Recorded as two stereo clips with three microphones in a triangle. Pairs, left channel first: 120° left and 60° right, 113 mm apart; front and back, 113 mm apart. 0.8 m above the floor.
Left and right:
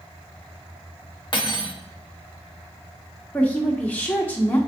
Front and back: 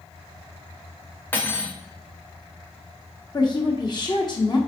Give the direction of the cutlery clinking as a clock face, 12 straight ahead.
10 o'clock.